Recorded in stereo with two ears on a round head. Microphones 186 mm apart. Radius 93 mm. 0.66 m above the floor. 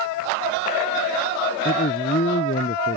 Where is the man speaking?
40° left (ahead or behind).